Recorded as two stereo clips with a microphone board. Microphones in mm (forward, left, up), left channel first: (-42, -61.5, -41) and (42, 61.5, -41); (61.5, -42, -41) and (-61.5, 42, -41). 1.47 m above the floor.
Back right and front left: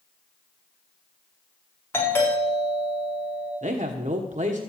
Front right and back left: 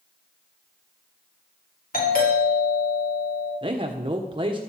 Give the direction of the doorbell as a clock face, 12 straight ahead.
2 o'clock.